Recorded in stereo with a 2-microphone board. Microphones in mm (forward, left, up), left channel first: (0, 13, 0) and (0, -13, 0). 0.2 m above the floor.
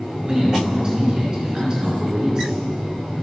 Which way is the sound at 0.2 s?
25° right (ahead or behind).